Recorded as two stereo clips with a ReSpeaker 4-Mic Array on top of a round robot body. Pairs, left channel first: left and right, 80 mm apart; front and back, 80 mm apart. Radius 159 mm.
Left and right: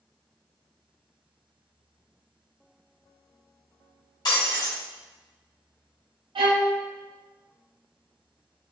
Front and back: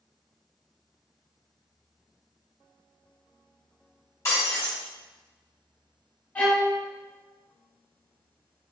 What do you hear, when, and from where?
4.2 s breaking glass: 55° left, 1.5 m
6.3 s a violin: 75° right, 0.7 m